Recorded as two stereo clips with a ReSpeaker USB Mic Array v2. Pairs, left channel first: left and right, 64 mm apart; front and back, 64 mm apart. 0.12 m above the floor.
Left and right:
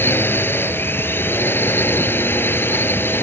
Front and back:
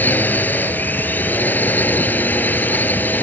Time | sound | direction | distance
0.0 | a drone | 50° left | ?